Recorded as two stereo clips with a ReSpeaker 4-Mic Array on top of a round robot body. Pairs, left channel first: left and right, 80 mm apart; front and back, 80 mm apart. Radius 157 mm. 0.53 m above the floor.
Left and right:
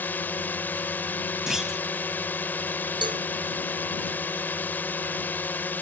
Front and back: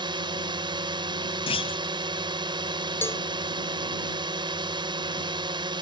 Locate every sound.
0.0 s a drone: 160° left
1.5 s a clunk: 5° right
3.0 s a cowbell: 65° right